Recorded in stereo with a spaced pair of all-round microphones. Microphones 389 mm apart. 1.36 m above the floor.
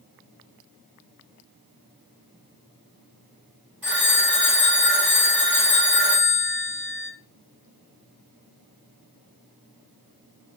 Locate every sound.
3.8 s a phone ringing: 5° right (ahead or behind), 6.5 m